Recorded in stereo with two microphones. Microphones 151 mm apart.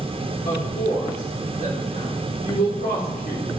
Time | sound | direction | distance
0.5 | a woman speaking | 80° left | 4 m